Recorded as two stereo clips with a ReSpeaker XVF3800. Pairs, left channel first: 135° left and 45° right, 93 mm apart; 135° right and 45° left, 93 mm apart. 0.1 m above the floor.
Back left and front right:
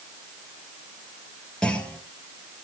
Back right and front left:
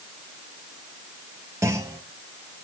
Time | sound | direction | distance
1.6 | a clunk | 65° left | 1.6 m